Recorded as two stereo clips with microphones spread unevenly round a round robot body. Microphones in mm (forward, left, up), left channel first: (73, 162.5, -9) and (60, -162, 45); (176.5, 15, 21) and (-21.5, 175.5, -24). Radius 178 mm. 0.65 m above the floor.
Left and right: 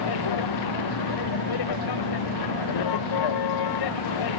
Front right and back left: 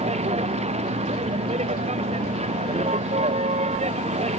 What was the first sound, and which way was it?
A vehicle, 75° left.